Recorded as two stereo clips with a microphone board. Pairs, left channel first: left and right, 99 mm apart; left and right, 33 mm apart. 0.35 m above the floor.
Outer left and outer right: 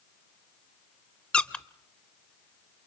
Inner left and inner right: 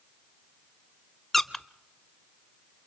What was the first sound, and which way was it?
A squeak, 10° left (ahead or behind).